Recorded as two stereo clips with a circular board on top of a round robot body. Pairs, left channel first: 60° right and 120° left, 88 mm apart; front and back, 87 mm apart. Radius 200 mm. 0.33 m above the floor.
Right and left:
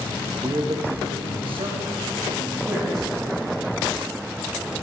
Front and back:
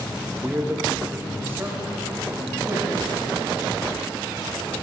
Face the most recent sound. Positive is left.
turn(degrees=115)